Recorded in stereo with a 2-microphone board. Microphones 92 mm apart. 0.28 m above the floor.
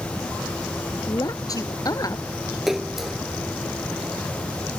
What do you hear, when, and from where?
1.1 s a woman speaking: 40° left (ahead or behind)
2.7 s a splash: 5° right (ahead or behind)